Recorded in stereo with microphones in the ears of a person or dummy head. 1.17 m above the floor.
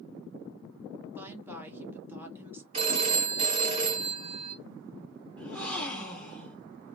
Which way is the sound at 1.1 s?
10° right (ahead or behind).